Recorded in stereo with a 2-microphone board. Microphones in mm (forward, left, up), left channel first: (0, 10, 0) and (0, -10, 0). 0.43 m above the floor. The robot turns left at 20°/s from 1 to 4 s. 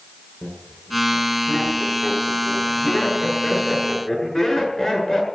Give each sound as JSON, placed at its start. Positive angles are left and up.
{"t": 0.4, "sound": "laughter", "side_deg": 70, "distance_m": 7.5}